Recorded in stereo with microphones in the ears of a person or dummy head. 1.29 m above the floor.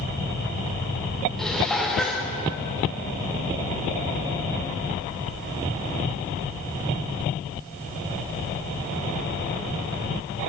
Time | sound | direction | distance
1.4 | dishes clattering | 5° left (ahead or behind) | 0.6 m